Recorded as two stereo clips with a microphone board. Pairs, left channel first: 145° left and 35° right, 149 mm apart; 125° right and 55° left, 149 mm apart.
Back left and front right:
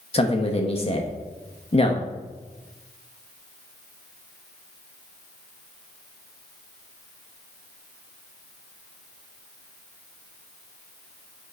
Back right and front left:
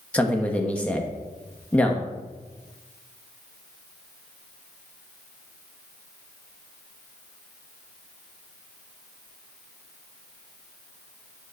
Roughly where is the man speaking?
Behind.